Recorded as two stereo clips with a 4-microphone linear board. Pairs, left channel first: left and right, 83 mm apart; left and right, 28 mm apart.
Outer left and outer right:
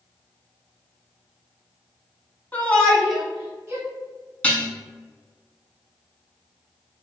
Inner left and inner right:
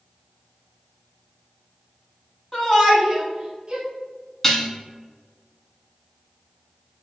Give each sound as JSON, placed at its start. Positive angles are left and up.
{"t": 2.5, "sound": "a shout", "side_deg": 20, "distance_m": 1.1}
{"t": 4.4, "sound": "dishes clattering", "side_deg": 15, "distance_m": 0.9}